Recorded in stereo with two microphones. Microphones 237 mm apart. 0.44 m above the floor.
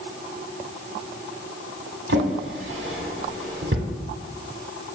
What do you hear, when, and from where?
2.1 s a drawer: 60° right (ahead or behind), 0.8 m